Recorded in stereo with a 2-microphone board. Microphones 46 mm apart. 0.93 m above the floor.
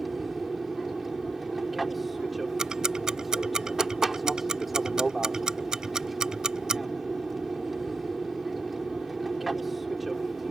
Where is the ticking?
15° right (ahead or behind).